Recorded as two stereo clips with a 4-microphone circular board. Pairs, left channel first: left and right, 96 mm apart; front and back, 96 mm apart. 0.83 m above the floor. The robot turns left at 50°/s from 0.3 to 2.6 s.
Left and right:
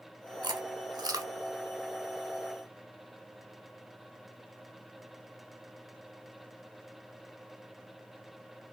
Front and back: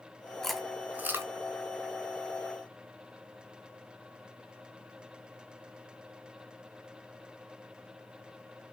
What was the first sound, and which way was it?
Chewing, 85° right.